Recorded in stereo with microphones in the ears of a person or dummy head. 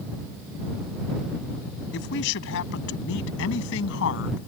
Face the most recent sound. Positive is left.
turn(degrees=85)